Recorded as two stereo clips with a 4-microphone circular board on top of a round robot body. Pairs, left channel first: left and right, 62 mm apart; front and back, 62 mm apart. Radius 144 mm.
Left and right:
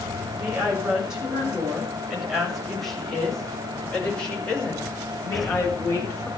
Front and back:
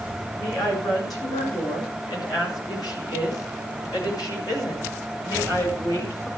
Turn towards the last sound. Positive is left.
turn(degrees=40)